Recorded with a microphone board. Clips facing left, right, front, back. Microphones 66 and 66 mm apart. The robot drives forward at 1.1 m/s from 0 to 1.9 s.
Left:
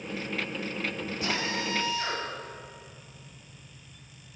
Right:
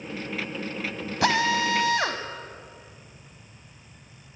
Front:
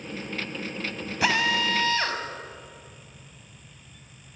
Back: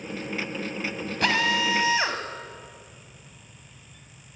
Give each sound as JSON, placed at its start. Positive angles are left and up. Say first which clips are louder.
{"t": 1.2, "sound": "a drill", "louder": "right 10 dB, even", "azimuth_deg": -85, "distance_m": 2.5}